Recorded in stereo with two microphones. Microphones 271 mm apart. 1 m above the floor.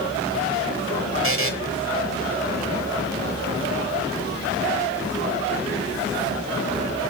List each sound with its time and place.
1.2 s a buzzer: 50° right (ahead or behind), 1.3 m